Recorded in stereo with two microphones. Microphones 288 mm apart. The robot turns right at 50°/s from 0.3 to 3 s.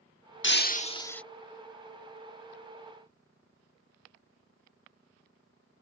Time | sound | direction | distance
0.4 | breaking glass | 135° left | ?